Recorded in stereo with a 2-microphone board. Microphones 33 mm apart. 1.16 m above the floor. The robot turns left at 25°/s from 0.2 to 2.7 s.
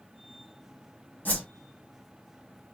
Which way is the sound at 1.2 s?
55° left (ahead or behind).